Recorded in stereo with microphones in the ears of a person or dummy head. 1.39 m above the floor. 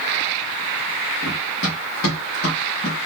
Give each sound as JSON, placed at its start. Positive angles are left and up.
{"t": 1.2, "sound": "running footsteps", "side_deg": 40, "distance_m": 3.0}